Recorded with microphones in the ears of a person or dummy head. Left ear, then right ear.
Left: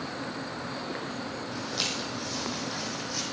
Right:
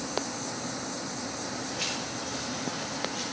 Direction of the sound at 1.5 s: 60° left (ahead or behind).